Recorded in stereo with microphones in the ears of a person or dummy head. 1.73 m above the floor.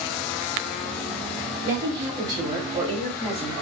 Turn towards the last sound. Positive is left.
turn(degrees=0)  # may be behind; listen again after turning